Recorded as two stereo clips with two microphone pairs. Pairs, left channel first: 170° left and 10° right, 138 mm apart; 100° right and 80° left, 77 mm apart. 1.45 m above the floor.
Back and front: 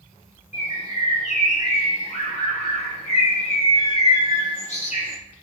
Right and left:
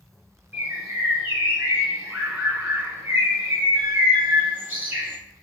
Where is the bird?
145° left, 0.9 m.